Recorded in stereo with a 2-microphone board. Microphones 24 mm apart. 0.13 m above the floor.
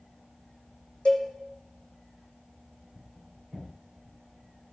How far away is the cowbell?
About 1.8 m.